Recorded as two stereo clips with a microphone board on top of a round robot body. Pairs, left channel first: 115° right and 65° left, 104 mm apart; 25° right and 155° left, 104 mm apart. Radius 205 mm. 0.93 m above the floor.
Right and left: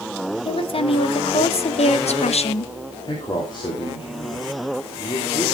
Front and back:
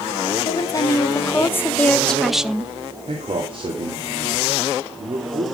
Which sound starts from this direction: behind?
A man speaking, at 3.0 s.